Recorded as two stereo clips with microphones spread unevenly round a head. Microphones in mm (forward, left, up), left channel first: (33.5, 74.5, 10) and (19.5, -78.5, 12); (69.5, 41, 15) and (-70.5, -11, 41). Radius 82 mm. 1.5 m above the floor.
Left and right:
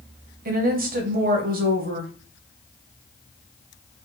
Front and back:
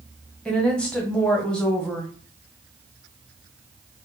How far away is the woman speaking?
About 1.0 m.